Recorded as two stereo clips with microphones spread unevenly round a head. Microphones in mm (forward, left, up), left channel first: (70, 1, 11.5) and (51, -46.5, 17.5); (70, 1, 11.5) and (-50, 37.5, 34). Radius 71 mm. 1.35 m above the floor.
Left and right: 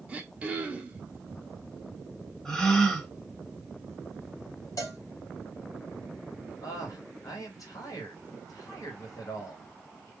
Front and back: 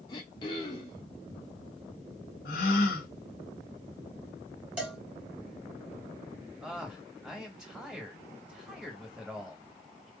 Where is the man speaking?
75° left, 2.5 m.